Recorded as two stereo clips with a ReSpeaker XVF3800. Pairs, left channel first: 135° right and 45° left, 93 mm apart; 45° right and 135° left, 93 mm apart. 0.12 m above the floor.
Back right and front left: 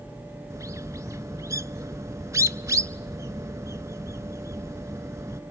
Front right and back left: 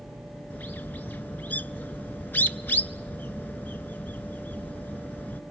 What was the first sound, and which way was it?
A bird, 15° left.